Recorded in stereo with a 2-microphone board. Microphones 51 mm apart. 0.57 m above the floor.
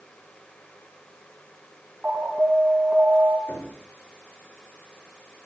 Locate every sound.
2.0 s an alarm: 30° right (ahead or behind), 3.5 m
3.5 s knocking: 50° left (ahead or behind), 8.5 m